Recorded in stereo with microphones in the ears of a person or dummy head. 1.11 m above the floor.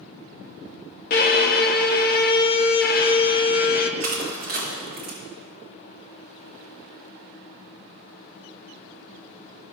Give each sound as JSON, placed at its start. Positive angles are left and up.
{"t": 1.1, "sound": "a violin", "side_deg": 35, "distance_m": 0.7}
{"t": 4.0, "sound": "crushing", "side_deg": -45, "distance_m": 1.3}